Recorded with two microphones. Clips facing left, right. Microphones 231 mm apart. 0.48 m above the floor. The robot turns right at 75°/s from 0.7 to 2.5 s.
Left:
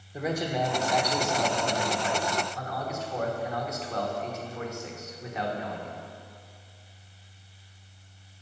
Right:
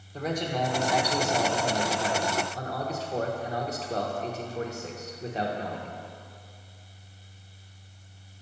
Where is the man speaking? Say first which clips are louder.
Left 1 dB; 165° left, 1.0 m; by 6.0 s 60° right, 1.0 m.